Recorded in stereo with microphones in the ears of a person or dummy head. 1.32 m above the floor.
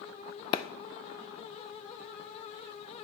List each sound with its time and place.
0.5 s a clap: 25° left (ahead or behind), 0.5 m